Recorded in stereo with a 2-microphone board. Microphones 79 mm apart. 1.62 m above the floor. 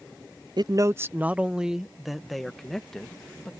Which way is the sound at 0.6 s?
60° right (ahead or behind).